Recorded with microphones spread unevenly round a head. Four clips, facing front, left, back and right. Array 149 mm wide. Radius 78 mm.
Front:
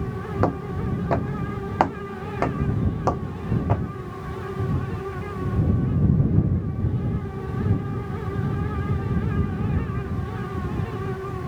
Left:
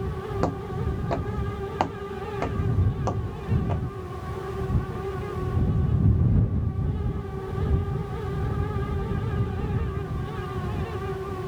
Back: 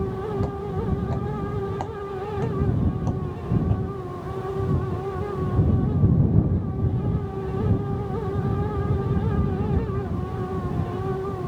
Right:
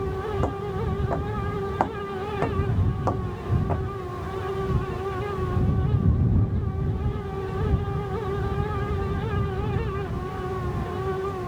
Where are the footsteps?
5° left; by 3.8 s 15° right.